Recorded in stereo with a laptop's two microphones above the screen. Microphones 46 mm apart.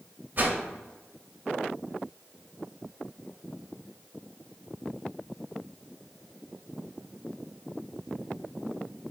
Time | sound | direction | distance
0.4 | a whoosh | 40° right (ahead or behind) | 0.6 m